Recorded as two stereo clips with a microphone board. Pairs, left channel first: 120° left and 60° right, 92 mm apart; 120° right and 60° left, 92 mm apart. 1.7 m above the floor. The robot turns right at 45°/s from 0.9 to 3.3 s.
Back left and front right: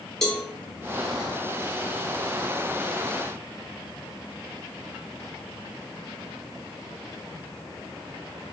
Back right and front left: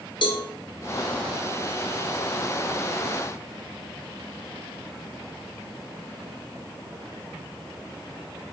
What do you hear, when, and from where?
0.2 s a cowbell: 155° right, 0.7 m